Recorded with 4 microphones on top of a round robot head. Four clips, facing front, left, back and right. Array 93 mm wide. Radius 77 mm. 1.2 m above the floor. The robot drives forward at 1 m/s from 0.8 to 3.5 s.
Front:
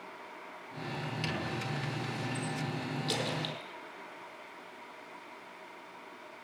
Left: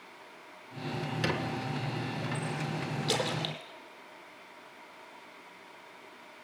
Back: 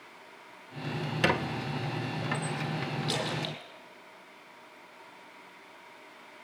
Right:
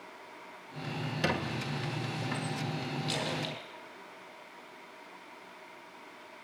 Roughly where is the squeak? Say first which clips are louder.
Right 1 dB, back 10 dB; behind.